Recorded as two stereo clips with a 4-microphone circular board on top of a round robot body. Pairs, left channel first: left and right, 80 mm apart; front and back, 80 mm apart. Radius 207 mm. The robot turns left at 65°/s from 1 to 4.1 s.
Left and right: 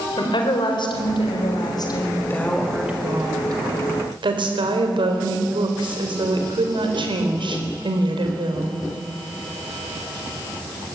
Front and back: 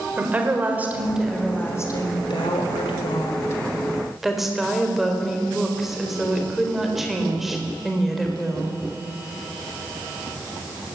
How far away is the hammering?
No hammering in this recording.